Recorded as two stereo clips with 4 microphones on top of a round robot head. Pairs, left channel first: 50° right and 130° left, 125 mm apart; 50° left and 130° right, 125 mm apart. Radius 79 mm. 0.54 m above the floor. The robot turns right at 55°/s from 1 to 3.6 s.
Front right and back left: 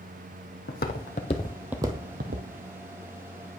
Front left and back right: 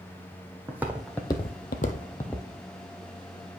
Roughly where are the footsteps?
Ahead right.